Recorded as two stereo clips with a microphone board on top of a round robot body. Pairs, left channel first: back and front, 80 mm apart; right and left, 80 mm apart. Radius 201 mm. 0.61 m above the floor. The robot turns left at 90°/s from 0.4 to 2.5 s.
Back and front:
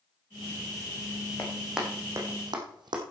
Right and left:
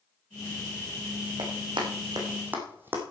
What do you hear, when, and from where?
1.4 s running footsteps: 115° left, 3 m; by 3.0 s 25° left, 2.5 m